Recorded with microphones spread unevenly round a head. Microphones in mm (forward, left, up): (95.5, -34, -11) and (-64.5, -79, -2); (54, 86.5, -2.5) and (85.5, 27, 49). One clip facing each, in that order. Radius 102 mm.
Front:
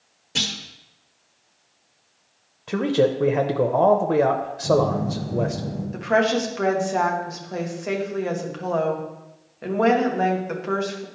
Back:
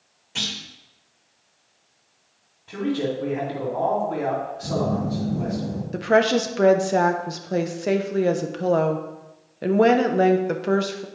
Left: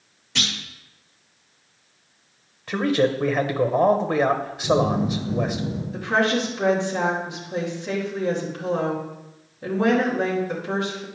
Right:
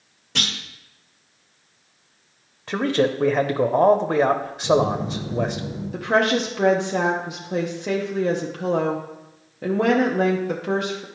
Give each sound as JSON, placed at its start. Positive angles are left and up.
{"t": 0.3, "sound": "a clunk", "azimuth_deg": -25, "distance_m": 1.4}
{"t": 2.7, "sound": "a man speaking", "azimuth_deg": 15, "distance_m": 0.7}
{"t": 4.6, "sound": "a phone buzzing", "azimuth_deg": -165, "distance_m": 2.5}
{"t": 5.9, "sound": "a woman speaking", "azimuth_deg": -120, "distance_m": 0.9}